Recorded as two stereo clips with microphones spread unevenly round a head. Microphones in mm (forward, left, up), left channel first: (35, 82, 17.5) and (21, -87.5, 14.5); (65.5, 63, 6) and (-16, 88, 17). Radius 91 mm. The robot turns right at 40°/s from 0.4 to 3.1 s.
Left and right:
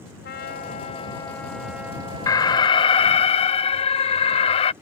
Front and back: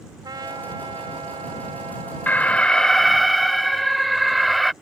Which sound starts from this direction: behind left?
A trumpet, at 0.2 s.